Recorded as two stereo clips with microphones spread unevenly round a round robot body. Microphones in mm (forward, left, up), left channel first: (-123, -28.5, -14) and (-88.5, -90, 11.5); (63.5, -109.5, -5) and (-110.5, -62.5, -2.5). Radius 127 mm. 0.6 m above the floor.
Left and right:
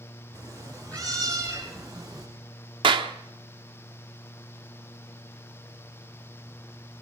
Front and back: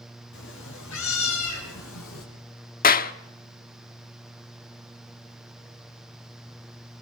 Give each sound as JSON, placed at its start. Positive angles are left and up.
{"t": 0.3, "sound": "a cat meowing", "azimuth_deg": 35, "distance_m": 4.5}
{"t": 2.8, "sound": "a clap", "azimuth_deg": -40, "distance_m": 1.0}